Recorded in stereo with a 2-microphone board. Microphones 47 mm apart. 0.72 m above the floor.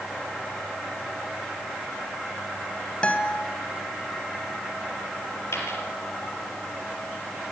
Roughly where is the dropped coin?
Left.